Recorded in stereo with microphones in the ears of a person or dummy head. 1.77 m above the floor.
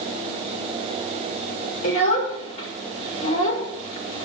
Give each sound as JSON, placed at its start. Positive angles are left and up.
{"t": 1.8, "sound": "a child speaking", "side_deg": 40, "distance_m": 5.0}